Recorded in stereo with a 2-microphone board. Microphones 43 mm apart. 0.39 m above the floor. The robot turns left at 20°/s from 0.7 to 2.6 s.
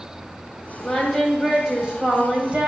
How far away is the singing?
About 2 m.